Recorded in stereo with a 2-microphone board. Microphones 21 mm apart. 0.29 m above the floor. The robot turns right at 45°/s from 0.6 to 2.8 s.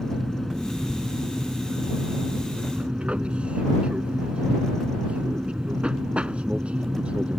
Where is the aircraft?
175° left; by 7.4 s 85° right.